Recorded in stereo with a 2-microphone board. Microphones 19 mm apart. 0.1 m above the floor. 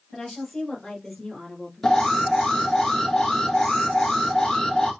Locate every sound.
0.1 s a woman speaking: 25° left (ahead or behind), 2.5 m; by 2.8 s 35° left (ahead or behind), 2.0 m
1.8 s an alarm: 25° left (ahead or behind), 1.8 m